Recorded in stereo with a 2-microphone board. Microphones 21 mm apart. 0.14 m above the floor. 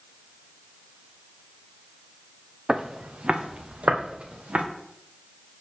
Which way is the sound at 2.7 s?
40° right (ahead or behind).